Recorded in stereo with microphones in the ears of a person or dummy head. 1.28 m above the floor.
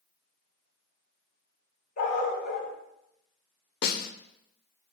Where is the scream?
No scream in this recording.